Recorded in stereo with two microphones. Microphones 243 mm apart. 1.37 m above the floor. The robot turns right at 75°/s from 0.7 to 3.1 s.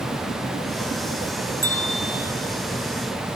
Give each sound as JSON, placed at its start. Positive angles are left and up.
{"t": 1.6, "sound": "a bell", "azimuth_deg": 95, "distance_m": 1.4}